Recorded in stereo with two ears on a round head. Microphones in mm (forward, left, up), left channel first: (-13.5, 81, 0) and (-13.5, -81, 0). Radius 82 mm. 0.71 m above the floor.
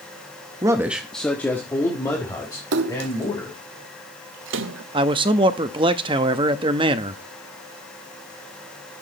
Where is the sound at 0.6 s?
20° right (ahead or behind), 0.8 m; by 3.6 s 20° left (ahead or behind), 4 m.